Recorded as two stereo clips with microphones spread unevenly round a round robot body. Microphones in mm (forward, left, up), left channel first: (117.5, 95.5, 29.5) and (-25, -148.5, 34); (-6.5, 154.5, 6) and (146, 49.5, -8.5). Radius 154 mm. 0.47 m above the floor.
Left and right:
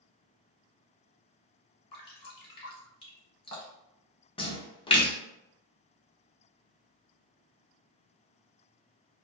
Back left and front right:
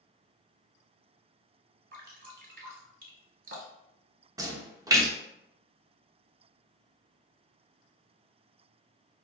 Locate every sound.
1.9 s dripping: 10° right, 1.0 m
4.4 s a splash: 5° left, 0.6 m